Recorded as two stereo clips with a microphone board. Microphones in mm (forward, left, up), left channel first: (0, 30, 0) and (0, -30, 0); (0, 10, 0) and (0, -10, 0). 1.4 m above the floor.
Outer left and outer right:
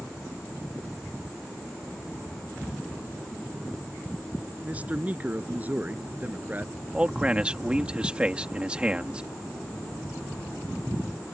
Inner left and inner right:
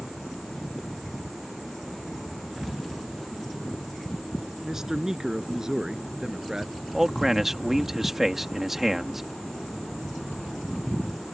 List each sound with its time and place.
4.6 s a man speaking: 25° right (ahead or behind); by 6.7 s 30° right (ahead or behind)
6.9 s a man speaking: 15° right (ahead or behind)